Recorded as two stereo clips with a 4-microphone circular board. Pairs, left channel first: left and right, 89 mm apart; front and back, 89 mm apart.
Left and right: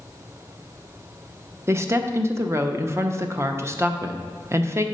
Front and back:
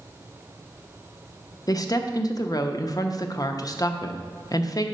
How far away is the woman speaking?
About 0.5 m.